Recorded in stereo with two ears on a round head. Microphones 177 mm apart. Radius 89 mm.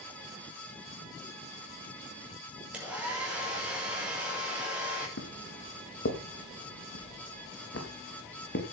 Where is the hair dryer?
5° right (ahead or behind), 6 m.